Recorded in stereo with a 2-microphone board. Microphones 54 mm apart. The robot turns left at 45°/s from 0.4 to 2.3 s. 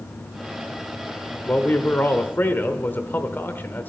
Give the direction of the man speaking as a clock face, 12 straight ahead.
8 o'clock.